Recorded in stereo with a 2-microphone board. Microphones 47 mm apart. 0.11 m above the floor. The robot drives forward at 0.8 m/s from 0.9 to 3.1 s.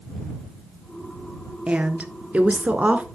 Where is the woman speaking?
25° right (ahead or behind), 1.4 m; by 3.1 s 30° right (ahead or behind), 1.2 m.